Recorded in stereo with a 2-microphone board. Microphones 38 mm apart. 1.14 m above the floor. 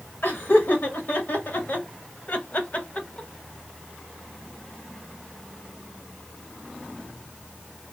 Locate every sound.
0.2 s laughter: 70° left (ahead or behind), 2 m; by 3.3 s 25° left (ahead or behind), 0.9 m